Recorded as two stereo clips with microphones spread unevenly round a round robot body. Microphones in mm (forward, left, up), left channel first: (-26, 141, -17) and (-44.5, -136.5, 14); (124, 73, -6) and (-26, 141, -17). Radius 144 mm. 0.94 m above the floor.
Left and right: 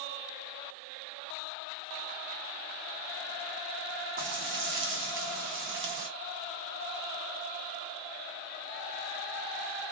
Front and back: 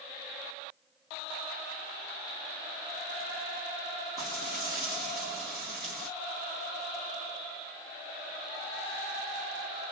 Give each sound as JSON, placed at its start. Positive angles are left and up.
{"t": 4.2, "sound": "frying", "azimuth_deg": -110, "distance_m": 0.8}